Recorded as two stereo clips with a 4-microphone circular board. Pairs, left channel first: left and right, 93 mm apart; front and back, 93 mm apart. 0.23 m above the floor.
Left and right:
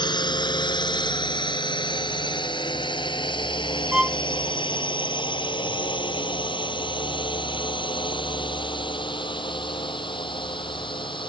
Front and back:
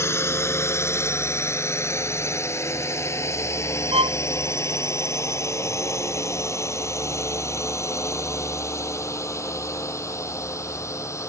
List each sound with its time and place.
0.0 s a drone: 60° left
3.9 s a violin: 175° right